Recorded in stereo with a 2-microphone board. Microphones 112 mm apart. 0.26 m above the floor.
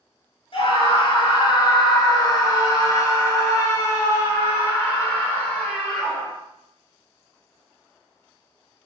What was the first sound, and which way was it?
A scream, 55° left (ahead or behind).